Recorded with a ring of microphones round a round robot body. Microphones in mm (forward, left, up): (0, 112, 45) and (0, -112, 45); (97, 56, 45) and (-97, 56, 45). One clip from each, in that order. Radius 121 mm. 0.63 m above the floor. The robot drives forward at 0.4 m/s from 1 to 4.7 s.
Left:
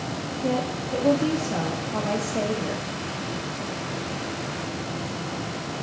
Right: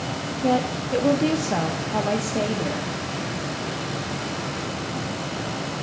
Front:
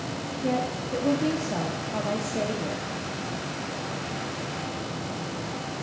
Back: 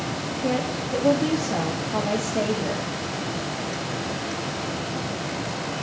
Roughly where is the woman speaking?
Right.